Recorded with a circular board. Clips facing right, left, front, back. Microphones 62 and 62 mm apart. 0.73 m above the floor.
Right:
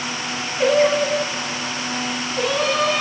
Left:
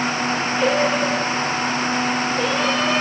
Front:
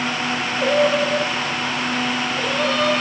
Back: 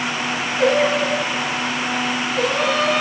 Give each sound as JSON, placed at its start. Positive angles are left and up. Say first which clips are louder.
{"t": 0.6, "sound": "singing", "louder": "right 4 dB, back 1 dB", "azimuth_deg": -145, "distance_m": 3.5}